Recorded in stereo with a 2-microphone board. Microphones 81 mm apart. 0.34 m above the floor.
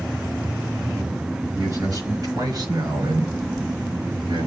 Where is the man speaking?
40° right (ahead or behind), 4.5 m; by 4.5 s 65° right (ahead or behind), 2.5 m.